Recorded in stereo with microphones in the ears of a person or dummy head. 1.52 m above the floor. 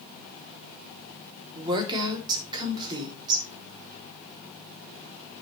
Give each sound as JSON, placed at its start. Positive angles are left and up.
{"t": 1.6, "sound": "a woman speaking", "side_deg": -25, "distance_m": 3.0}